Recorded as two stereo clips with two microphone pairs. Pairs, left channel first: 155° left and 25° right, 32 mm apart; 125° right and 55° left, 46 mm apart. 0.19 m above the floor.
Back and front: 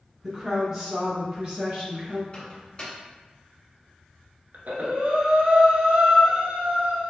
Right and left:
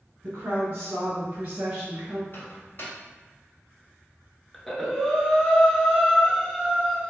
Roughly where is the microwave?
Behind right.